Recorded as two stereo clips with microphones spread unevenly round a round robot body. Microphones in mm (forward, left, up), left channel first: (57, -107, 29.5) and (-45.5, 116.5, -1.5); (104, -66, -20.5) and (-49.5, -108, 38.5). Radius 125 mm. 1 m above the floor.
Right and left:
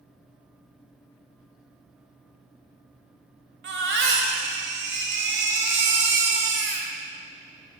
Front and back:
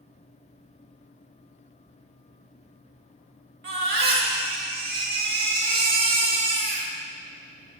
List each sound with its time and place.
3.6 s a baby crying: 165° left, 1.9 m